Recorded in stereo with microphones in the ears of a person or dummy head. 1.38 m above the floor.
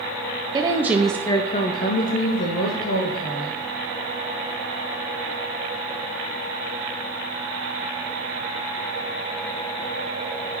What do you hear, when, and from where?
0.5 s a woman speaking: 20° right (ahead or behind), 0.7 m; by 3.6 s 70° left (ahead or behind), 1.4 m